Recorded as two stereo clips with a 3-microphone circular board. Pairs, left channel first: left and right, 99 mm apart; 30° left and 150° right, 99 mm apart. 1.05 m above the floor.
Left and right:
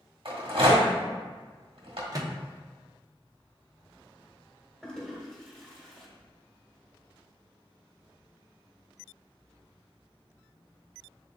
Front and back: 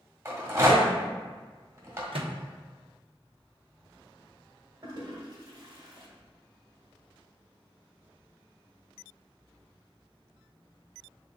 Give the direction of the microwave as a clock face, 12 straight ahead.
5 o'clock.